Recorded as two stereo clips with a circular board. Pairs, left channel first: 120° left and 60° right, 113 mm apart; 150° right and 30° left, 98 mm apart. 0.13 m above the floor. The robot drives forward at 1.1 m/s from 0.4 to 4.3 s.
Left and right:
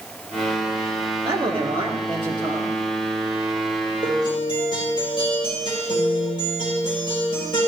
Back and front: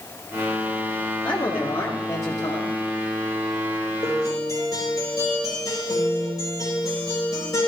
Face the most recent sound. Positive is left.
turn(degrees=165)